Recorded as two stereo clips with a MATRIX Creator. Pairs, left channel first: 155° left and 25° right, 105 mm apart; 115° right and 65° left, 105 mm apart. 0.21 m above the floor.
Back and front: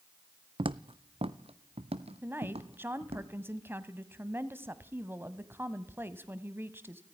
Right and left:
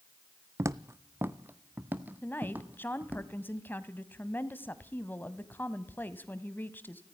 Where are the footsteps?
5° left, 0.6 m; by 3.2 s 10° right, 2.5 m.